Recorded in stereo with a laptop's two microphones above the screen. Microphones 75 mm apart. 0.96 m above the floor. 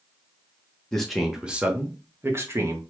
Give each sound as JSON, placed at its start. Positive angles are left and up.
{"t": 0.9, "sound": "a man speaking", "side_deg": 10, "distance_m": 0.6}